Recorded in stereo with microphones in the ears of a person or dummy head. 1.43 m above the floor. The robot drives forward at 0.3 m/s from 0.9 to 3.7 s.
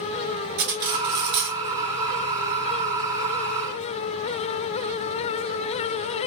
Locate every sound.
0.6 s cutlery clinking: 60° right (ahead or behind), 1.1 m; by 1.6 s 65° right (ahead or behind), 1.1 m